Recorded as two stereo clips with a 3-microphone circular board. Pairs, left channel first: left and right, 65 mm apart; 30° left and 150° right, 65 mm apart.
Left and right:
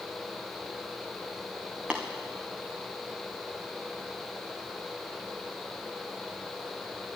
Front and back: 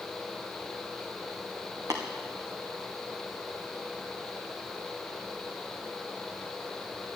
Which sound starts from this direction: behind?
Tapping, at 1.9 s.